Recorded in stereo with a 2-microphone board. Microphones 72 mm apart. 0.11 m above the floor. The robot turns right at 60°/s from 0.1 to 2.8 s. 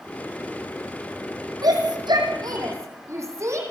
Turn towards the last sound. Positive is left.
turn(degrees=-45)  # may be behind; listen again after turning